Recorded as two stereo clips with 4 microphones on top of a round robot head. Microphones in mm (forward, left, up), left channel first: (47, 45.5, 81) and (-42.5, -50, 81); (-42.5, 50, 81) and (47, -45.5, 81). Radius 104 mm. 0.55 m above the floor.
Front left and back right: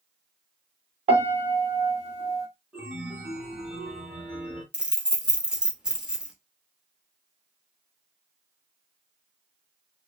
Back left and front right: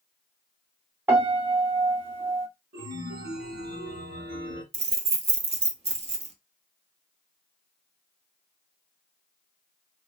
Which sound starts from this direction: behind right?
A piano, at 1.1 s.